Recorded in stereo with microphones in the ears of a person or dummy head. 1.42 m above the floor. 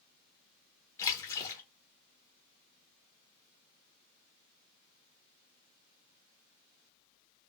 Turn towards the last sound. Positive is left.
turn(degrees=20)  # may be behind; listen again after turning